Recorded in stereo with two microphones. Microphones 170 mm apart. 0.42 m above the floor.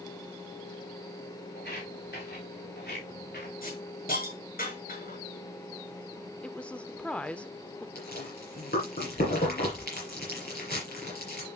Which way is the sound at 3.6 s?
60° left (ahead or behind).